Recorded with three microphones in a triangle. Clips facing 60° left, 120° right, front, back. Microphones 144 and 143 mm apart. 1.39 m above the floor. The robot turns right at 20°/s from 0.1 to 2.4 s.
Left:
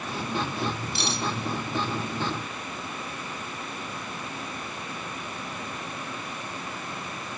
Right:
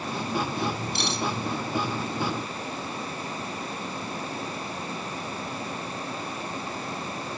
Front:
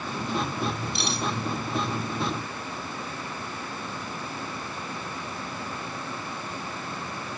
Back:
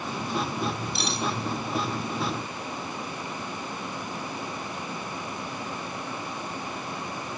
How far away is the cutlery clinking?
About 2 m.